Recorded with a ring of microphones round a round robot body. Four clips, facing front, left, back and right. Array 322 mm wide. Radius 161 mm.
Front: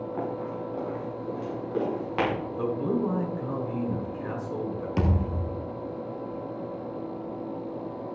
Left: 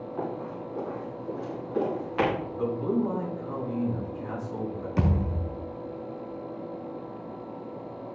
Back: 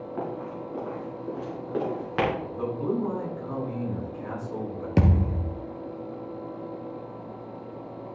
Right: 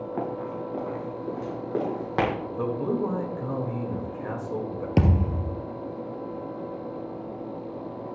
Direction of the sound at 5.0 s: 125° right.